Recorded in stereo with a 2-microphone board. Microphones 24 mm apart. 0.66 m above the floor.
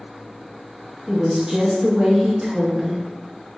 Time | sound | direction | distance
1.1 | a woman speaking | 15° right (ahead or behind) | 0.7 m